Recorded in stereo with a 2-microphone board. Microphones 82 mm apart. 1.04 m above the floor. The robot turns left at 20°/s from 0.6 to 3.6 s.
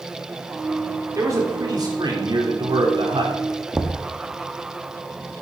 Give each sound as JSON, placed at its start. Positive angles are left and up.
{"t": 1.1, "sound": "a man speaking", "azimuth_deg": -40, "distance_m": 3.5}
{"t": 3.7, "sound": "knocking", "side_deg": -15, "distance_m": 0.9}